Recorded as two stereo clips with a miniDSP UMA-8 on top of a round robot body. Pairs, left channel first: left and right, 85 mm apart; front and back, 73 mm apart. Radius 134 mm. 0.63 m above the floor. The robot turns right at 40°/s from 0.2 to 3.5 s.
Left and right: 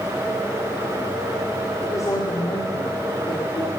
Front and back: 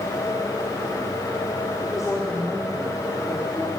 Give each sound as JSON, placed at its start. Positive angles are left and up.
{"t": 1.8, "sound": "a woman speaking", "azimuth_deg": 35, "distance_m": 1.8}